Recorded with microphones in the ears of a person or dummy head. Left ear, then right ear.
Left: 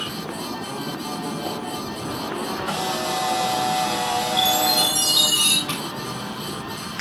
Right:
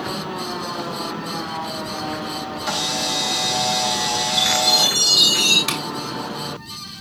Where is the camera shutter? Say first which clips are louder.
Right 4 dB; 40° right (ahead or behind), 6 m.